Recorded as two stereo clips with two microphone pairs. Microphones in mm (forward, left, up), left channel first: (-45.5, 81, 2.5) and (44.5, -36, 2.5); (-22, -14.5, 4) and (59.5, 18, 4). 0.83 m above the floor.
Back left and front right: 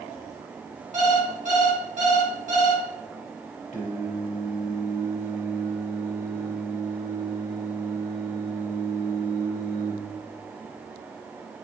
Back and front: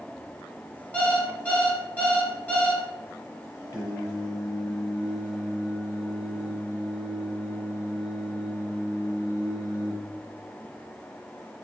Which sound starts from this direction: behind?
Singing, at 3.7 s.